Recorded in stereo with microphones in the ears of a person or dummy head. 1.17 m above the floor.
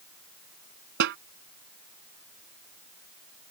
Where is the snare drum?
60° right (ahead or behind).